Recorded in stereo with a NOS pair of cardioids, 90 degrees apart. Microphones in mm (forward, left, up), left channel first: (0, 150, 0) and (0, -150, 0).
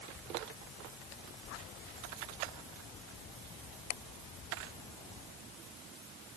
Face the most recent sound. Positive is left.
No sound to turn to.